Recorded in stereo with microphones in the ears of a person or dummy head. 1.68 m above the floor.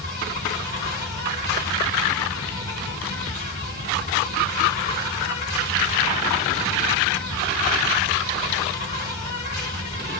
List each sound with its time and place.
0.0 s an insect: 35° left (ahead or behind), 2.5 m